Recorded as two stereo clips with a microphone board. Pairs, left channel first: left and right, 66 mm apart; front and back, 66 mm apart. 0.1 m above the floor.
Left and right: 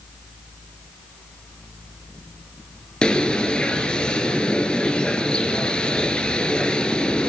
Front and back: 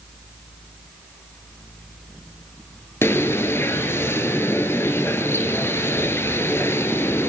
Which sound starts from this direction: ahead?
A bird, at 3.0 s.